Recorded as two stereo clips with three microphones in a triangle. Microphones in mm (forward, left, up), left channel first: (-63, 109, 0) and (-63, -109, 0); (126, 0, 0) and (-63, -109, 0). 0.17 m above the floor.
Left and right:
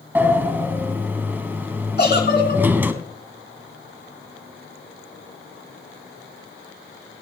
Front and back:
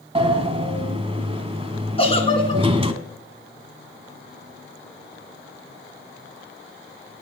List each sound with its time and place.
0.1 s a sliding door: 160° right, 0.9 m
2.0 s a giggle: 85° left, 2.5 m